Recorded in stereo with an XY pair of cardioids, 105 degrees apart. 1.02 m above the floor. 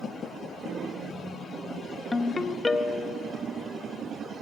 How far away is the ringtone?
About 0.6 m.